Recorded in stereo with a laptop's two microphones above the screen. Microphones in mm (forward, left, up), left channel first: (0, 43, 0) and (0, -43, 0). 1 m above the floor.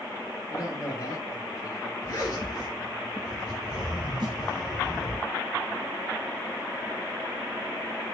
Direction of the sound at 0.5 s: 50° left (ahead or behind).